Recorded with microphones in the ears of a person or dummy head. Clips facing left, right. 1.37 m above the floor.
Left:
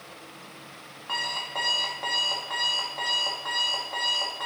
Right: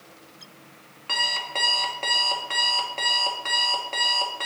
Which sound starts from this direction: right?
An alarm clock, at 1.1 s.